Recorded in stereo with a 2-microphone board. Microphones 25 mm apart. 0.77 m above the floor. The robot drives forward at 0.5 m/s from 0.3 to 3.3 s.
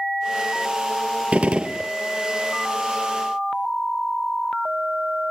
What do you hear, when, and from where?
1.3 s a gunshot: 65° right (ahead or behind), 0.6 m; by 1.9 s 45° right (ahead or behind), 0.8 m